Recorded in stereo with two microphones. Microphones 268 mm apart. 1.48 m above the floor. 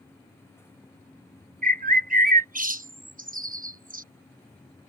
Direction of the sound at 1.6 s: 30° right (ahead or behind).